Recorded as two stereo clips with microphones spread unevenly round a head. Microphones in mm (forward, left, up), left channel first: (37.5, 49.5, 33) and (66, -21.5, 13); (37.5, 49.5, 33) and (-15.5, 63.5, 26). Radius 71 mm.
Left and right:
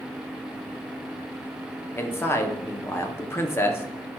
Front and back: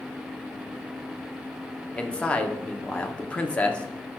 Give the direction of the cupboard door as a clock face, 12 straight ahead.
I don't hear a cupboard door.